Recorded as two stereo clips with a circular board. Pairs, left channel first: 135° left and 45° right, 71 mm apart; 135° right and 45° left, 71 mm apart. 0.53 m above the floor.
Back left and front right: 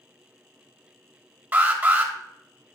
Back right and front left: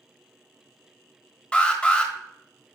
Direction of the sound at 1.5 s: 80° right.